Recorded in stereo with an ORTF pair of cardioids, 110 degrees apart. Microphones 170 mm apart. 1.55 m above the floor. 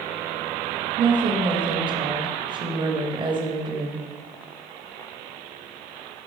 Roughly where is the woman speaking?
Ahead right.